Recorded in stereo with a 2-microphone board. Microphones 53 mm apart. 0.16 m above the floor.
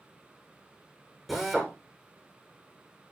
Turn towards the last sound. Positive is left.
turn(degrees=0)  # may be behind; listen again after turning